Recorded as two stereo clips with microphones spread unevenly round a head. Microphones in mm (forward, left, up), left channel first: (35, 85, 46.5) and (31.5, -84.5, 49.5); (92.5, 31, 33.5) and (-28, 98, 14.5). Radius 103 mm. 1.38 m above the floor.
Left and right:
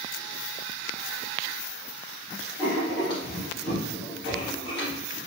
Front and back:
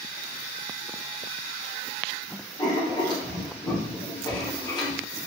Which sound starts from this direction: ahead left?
Writing, at 2.6 s.